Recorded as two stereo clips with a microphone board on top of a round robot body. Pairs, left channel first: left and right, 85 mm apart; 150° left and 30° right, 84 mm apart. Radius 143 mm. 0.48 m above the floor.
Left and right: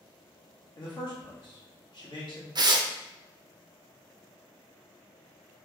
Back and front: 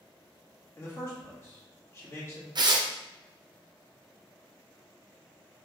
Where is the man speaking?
100° left, 1.7 m.